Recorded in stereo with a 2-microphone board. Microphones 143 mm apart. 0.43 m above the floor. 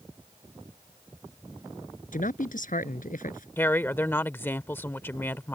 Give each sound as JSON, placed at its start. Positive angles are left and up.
{"t": 2.1, "sound": "a man speaking", "side_deg": 70}
{"t": 3.6, "sound": "a woman speaking", "side_deg": 15}